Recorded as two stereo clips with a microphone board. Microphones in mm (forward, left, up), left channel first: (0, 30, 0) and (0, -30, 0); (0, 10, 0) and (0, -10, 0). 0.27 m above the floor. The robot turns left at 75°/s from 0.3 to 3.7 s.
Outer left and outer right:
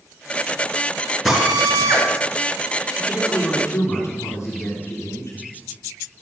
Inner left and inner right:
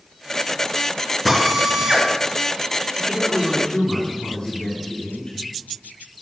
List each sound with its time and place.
1.2 s a drill: 5° right, 3.5 m; by 2.1 s 65° right, 3.5 m
3.0 s a man speaking: 170° right, 4 m; by 5.4 s 135° left, 4 m